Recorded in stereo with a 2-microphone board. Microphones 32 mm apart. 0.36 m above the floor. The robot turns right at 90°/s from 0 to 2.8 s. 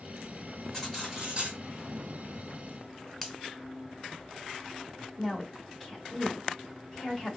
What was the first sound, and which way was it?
Cutlery clinking, 165° left.